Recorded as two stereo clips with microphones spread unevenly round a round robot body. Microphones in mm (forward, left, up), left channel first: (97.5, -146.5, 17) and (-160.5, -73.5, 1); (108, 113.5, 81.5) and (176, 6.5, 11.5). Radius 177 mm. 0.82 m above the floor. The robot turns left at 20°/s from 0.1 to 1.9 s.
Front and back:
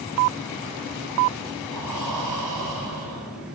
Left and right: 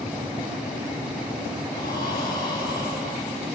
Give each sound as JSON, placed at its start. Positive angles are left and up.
{"t": 1.7, "sound": "breathing", "azimuth_deg": 145, "distance_m": 4.5}